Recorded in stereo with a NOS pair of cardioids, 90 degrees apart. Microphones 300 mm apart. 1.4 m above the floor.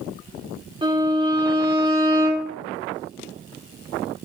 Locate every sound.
0.8 s a violin: 15° right, 3.5 m